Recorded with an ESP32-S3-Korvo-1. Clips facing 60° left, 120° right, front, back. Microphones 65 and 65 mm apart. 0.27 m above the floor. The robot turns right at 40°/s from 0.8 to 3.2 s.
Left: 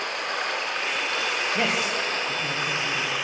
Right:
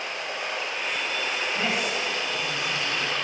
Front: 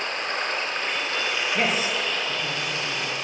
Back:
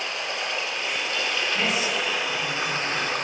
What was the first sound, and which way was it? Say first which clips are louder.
Running water: left 3 dB, front 2 dB; 45° left.